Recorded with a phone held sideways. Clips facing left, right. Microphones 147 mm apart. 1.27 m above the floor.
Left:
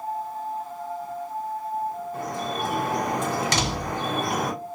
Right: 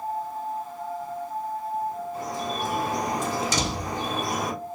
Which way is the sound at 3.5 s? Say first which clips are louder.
Left 1 dB; 70° left (ahead or behind).